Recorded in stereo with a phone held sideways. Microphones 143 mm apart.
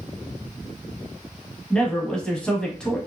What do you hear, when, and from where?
1.7 s a man speaking: 5° left (ahead or behind), 0.8 m